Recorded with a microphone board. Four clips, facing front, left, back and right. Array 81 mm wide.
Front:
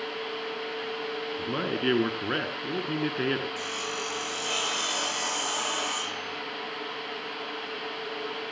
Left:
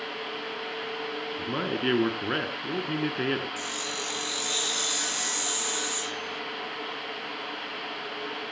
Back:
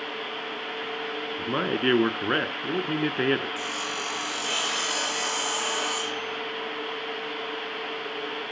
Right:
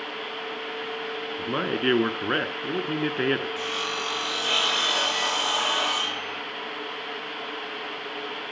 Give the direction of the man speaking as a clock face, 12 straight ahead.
5 o'clock.